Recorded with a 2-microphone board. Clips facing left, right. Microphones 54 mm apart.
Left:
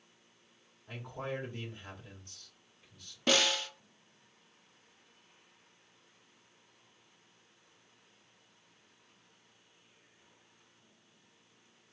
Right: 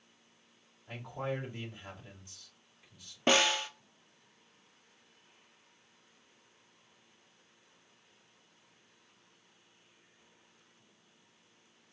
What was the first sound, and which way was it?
A man speaking, 5° right (ahead or behind).